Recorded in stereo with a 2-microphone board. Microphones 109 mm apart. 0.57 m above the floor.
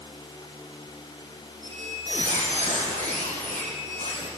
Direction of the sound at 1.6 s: 85° left.